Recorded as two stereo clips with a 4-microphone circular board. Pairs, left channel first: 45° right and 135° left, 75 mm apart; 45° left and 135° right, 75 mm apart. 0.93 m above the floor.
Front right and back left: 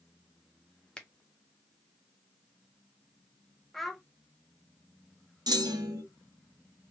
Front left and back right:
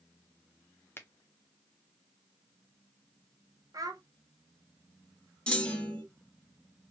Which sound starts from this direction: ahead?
A finger snap, at 1.0 s.